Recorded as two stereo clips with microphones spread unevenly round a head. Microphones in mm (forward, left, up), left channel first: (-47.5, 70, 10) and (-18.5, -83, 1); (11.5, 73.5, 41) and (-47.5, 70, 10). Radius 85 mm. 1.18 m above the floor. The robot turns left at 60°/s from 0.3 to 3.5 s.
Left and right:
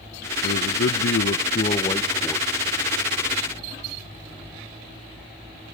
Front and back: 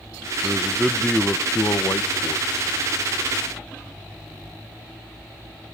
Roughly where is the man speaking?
Behind left.